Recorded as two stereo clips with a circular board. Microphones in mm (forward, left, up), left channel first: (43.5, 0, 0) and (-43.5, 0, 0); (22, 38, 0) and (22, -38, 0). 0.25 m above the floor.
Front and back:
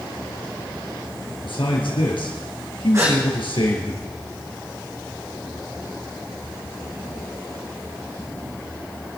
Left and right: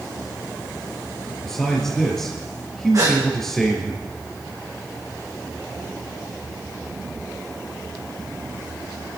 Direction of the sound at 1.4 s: 5° left.